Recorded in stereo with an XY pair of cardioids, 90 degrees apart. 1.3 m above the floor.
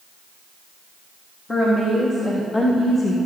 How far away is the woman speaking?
About 2 m.